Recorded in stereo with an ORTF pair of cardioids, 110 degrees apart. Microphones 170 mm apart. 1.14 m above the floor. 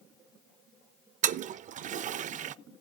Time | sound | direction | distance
1.2 | a toilet flushing | 45° right | 0.6 m